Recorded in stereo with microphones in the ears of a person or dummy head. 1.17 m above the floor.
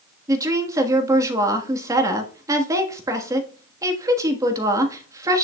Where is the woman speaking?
15° right (ahead or behind), 1.4 m.